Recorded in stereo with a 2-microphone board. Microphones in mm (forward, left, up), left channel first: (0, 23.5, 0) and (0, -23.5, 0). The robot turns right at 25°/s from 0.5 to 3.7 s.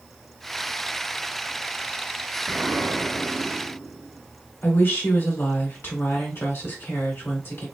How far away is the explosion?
About 1.5 m.